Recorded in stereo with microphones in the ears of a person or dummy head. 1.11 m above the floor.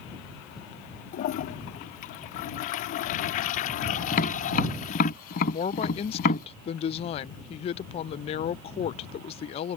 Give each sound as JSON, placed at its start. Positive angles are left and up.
{"t": 1.1, "sound": "a toilet flushing", "side_deg": 35}
{"t": 4.1, "sound": "tapping", "side_deg": 50}
{"t": 5.5, "sound": "a woman speaking", "side_deg": 25}